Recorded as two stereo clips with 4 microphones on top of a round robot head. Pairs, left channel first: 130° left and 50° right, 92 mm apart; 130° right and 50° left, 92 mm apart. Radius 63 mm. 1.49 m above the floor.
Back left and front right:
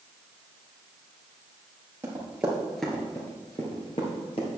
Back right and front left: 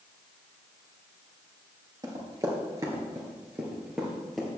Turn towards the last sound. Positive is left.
turn(degrees=145)